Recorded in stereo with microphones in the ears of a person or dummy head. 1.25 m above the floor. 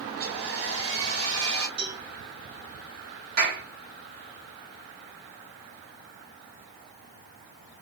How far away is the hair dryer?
About 1.3 m.